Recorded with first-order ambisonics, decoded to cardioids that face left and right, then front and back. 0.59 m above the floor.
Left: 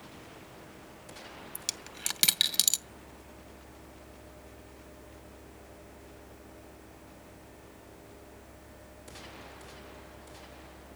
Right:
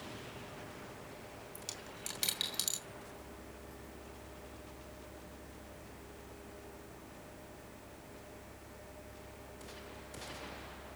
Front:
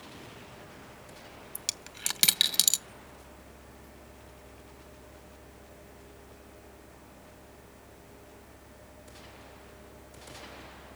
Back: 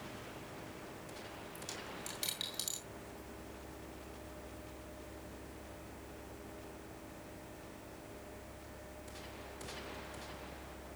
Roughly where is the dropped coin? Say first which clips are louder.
Left 9 dB, front 10 dB; ahead left.